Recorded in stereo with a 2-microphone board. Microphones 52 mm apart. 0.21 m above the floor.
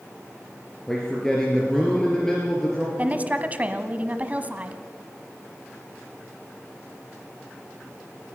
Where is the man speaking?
10° left (ahead or behind), 3 m.